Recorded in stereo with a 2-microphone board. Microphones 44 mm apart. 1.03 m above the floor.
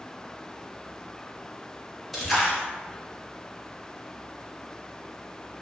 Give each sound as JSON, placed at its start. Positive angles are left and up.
{"t": 2.1, "sound": "a splash", "side_deg": 0, "distance_m": 0.6}